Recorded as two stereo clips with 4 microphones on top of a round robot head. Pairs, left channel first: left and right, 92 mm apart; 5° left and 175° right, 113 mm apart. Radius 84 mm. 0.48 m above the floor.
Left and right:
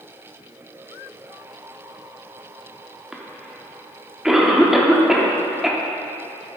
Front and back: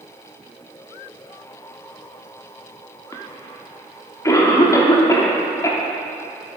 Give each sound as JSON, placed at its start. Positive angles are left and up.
{"t": 3.1, "sound": "a cough", "azimuth_deg": -10, "distance_m": 1.1}